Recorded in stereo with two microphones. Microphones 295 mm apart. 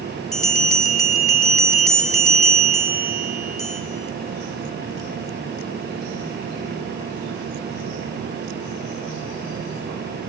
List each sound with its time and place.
0.3 s a bell: 45° left (ahead or behind), 3 m